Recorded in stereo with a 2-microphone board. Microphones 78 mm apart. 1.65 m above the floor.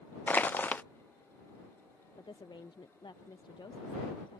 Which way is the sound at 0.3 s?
25° left (ahead or behind).